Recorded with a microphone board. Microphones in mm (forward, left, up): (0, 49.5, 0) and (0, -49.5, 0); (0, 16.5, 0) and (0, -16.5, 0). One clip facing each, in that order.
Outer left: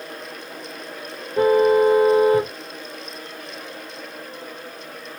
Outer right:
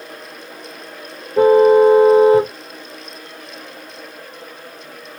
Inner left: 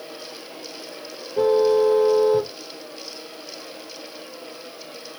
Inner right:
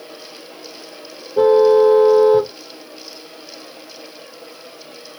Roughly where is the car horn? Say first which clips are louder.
Outer right 6 dB, inner right 6 dB; right.